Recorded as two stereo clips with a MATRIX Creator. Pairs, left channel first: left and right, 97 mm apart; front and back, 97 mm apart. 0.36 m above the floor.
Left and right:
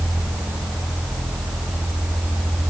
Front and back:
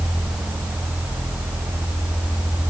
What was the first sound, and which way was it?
Only background noise.